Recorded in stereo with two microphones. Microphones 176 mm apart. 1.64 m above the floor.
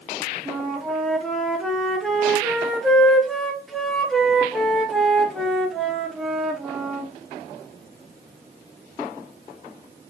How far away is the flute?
About 0.7 m.